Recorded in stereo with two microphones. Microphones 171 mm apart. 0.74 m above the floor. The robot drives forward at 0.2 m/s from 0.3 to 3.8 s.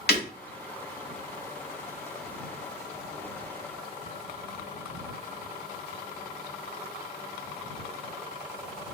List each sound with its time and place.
0.1 s breaking glass: 80° left, 1.1 m